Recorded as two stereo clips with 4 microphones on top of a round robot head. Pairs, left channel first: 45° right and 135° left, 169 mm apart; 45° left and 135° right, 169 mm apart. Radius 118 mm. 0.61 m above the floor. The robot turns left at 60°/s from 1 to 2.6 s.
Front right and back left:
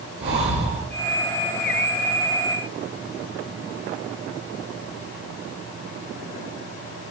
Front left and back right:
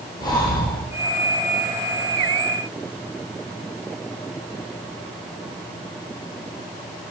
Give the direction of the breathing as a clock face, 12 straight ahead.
8 o'clock.